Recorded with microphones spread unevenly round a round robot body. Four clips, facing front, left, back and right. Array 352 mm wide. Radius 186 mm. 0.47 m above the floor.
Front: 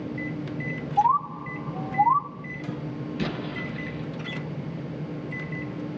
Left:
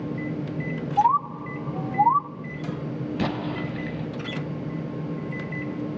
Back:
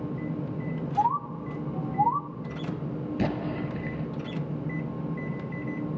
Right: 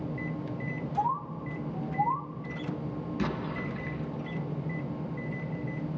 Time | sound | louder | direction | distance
1.0 | a bird | left 10 dB, front 5 dB | 65° left | 0.9 m
3.2 | an explosion | left 5 dB, back 3 dB | 130° left | 1.3 m